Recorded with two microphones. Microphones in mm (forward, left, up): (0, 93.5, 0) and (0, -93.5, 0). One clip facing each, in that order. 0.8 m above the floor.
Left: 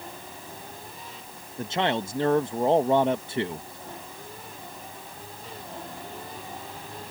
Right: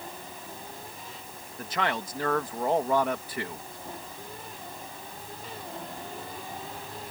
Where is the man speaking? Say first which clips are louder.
Left 4 dB; 25° left (ahead or behind).